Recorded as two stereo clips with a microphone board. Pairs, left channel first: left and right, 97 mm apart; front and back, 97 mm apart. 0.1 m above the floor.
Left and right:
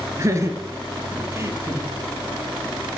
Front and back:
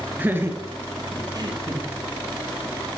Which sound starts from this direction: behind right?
Laughter, at 0.2 s.